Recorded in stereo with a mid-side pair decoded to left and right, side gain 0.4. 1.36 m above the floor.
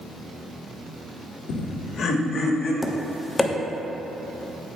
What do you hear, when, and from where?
1.5 s laughter: 70° left, 1.0 m; by 2.7 s 60° left, 3 m
2.8 s tapping: 20° left, 1.0 m